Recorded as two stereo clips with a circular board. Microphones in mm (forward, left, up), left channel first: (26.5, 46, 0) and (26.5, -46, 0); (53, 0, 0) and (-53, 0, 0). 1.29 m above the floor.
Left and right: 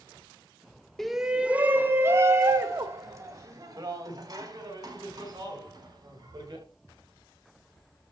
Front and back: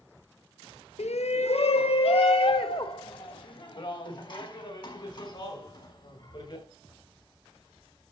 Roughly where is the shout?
Ahead.